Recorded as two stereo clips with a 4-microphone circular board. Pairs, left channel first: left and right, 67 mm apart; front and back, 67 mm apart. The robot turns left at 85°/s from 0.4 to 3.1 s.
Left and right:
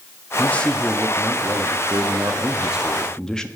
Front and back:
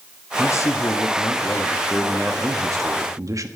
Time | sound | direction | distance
0.4 | a man speaking | 35° left | 1.3 m